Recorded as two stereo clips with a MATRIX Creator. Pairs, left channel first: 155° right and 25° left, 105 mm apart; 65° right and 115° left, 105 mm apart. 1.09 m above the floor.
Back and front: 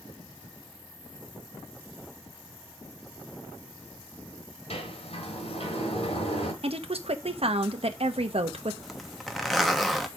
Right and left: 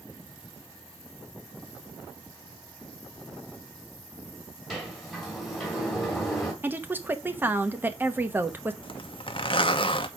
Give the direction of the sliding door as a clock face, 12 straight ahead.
5 o'clock.